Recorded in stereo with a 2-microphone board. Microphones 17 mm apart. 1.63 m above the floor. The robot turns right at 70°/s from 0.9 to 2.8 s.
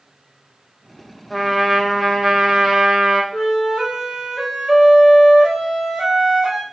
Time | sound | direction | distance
1.3 | a trumpet | 5° left (ahead or behind) | 0.9 m
3.3 | a flute | 45° right (ahead or behind) | 0.8 m